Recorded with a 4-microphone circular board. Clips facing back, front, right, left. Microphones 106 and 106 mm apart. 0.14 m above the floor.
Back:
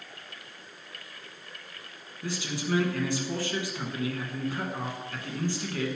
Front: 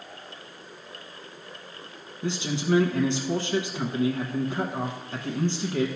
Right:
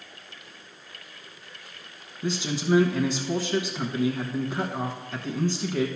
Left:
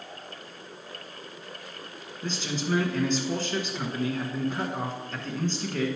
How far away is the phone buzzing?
I don't hear a phone buzzing.